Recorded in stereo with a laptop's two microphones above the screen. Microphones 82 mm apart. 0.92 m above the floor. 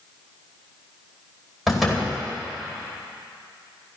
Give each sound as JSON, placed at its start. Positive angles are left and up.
{"t": 1.7, "sound": "a door slam", "side_deg": 0, "distance_m": 2.0}